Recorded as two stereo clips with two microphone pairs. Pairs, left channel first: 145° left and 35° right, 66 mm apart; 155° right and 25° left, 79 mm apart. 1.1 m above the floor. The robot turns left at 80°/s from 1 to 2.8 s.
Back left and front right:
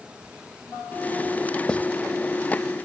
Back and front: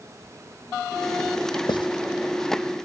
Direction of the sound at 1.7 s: 140° right.